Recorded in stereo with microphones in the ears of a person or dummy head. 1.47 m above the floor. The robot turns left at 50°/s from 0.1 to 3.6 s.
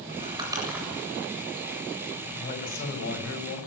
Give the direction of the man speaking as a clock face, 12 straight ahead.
7 o'clock.